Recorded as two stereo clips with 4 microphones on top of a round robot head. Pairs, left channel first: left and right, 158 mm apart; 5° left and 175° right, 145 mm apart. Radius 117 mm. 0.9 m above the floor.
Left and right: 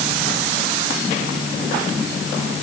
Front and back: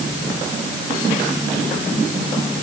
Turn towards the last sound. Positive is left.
No sound to turn to.